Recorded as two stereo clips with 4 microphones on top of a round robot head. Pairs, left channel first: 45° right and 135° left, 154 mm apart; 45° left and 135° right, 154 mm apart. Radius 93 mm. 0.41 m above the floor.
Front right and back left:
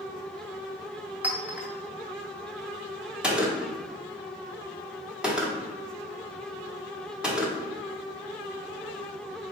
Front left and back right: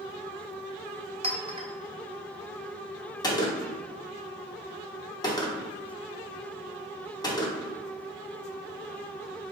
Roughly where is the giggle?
No giggle in this recording.